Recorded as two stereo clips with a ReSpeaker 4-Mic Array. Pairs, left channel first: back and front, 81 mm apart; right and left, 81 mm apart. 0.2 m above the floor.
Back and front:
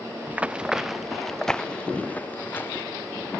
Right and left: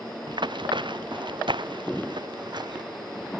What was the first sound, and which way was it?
Running footsteps, 70° left.